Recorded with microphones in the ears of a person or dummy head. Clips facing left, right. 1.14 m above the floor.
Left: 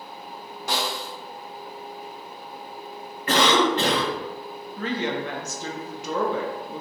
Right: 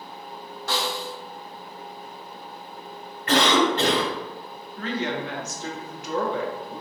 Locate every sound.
0.7 s a snare drum: 15° left (ahead or behind), 0.6 m
3.3 s a cough: 70° left (ahead or behind), 1.8 m
4.8 s a woman speaking: 60° left (ahead or behind), 0.6 m